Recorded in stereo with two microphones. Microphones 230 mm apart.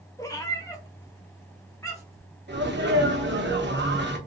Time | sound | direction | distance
0.2 | a cat meowing | 15° left (ahead or behind) | 0.9 m
2.5 | a sneeze | 50° right (ahead or behind) | 1.1 m